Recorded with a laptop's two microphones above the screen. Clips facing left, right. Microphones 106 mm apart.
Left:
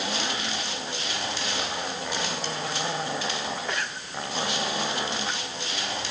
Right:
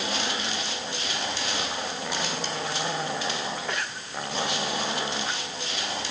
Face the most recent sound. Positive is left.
No sound to turn to.